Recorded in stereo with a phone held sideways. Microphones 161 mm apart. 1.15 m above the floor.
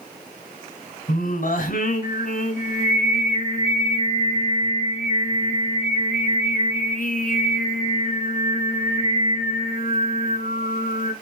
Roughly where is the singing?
Left.